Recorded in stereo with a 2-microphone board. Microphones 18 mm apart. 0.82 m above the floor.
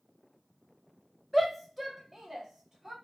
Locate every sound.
1.3 s a shout: 10° left (ahead or behind), 0.6 m; by 2.9 s 20° right (ahead or behind), 1.0 m